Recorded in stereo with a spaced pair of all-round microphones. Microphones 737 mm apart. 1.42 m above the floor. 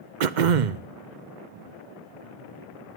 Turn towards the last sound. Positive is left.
turn(degrees=-80)